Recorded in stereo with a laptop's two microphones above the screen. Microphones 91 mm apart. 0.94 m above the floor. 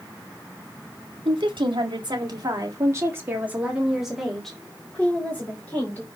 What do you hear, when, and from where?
1.2 s a woman speaking: 70° right (ahead or behind), 2.5 m; by 6.1 s 25° left (ahead or behind), 3 m